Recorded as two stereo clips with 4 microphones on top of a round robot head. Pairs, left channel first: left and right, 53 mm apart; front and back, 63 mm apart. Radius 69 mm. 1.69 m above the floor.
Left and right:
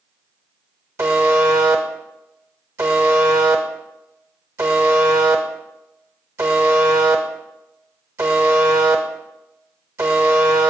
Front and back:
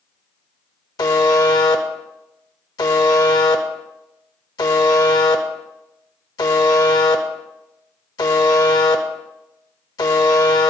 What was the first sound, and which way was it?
A buzzer, 35° right.